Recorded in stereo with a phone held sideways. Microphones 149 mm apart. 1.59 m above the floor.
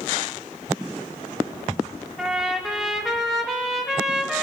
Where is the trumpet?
Centre (ahead or behind), 3 m.